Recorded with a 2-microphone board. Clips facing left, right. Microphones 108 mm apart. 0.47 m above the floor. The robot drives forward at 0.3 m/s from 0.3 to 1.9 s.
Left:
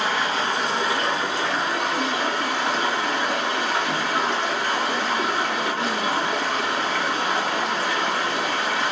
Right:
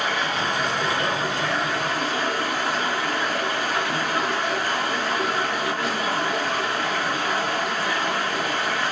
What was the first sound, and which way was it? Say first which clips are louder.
Running water: left 1 dB; 30° left (ahead or behind).